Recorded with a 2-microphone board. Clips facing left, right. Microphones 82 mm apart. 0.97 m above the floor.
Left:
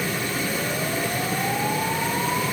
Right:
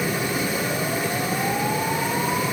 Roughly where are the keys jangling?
I don't hear keys jangling.